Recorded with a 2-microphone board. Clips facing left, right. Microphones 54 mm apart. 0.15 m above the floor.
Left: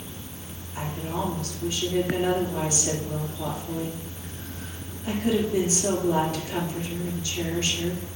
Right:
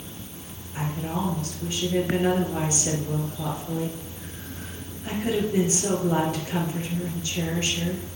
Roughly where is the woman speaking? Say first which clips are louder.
Right 1 dB; right.